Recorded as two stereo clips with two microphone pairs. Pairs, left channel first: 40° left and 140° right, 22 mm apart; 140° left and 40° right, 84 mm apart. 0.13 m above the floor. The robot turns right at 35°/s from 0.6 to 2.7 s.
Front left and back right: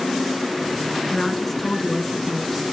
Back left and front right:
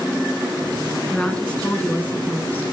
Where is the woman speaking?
75° left, 1.2 m; by 2.6 s 130° left, 1.2 m.